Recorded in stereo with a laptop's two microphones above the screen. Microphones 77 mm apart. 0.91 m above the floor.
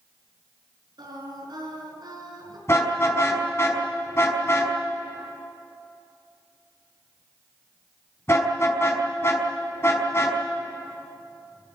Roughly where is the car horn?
Left.